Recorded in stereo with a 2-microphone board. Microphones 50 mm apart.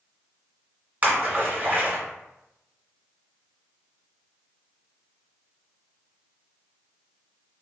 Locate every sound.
1.0 s a splash: 35° right (ahead or behind), 1.5 m